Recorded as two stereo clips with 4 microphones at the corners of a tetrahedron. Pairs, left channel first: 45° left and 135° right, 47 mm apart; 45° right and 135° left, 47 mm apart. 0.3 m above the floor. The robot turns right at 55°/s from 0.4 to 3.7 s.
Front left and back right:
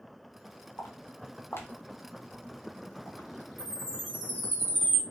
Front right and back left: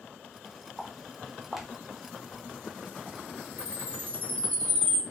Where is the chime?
50° right, 2.0 m; by 5.0 s 40° right, 2.0 m.